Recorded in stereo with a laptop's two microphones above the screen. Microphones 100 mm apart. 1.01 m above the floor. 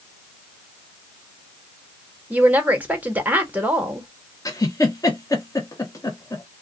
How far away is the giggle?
About 0.8 m.